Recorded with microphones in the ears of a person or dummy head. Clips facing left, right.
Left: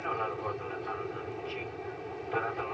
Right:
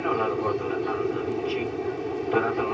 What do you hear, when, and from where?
0.0 s an aircraft: 60° right (ahead or behind)